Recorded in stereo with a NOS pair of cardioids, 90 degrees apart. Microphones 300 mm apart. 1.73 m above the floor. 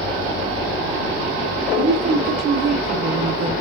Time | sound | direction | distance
1.8 | a woman speaking | 60° right | 1.7 m